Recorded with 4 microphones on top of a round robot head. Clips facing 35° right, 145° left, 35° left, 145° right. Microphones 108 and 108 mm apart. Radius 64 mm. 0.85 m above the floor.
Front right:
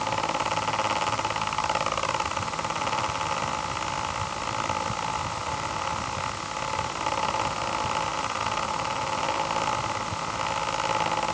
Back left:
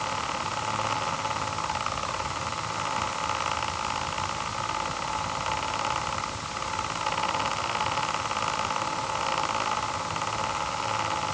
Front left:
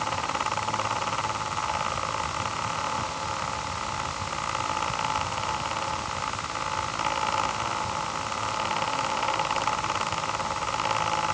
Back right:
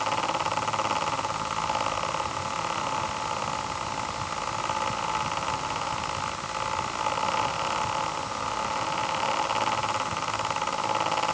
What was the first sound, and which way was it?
Only background noise.